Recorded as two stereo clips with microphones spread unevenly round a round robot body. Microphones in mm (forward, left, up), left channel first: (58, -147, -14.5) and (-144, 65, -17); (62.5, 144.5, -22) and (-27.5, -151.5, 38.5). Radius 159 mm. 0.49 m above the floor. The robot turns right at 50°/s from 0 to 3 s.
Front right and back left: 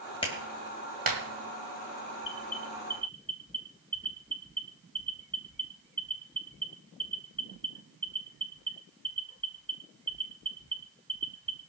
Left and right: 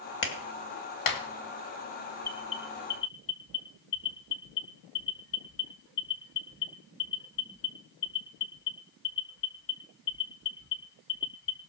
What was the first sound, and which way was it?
A clap, 25° left.